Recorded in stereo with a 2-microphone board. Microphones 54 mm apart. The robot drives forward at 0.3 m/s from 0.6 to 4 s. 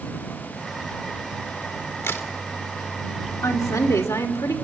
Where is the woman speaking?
80° left, 3 m; by 4.5 s 75° left (ahead or behind), 3 m.